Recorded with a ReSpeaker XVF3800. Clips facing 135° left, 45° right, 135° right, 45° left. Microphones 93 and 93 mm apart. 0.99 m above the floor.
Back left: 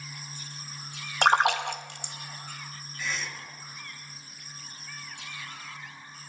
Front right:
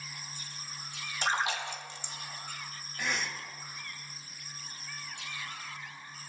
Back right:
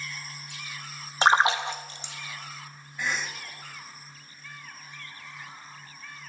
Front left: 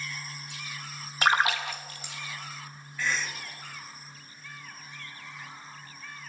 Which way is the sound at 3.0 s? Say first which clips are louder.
Front right 1 dB, even; 65° right.